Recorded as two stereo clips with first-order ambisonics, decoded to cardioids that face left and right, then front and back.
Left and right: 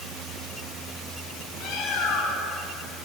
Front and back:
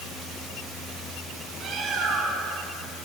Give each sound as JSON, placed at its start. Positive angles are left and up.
{"t": 1.6, "sound": "a bird", "azimuth_deg": 125, "distance_m": 6.0}